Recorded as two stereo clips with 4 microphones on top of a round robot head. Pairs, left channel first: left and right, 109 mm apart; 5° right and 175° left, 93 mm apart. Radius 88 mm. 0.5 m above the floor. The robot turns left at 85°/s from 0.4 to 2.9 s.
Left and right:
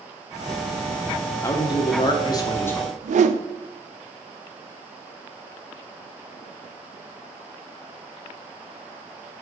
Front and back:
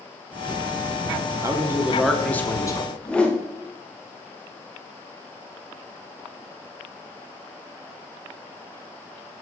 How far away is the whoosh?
About 0.5 m.